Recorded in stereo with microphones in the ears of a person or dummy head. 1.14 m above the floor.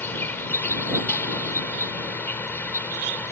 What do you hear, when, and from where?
0.0 s an insect: 10° left (ahead or behind)